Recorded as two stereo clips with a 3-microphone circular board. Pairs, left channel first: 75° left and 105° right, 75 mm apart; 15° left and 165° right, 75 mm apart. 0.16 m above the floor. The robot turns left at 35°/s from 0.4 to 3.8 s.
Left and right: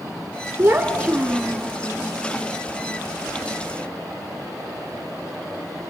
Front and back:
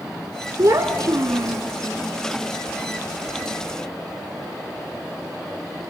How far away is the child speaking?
About 0.9 m.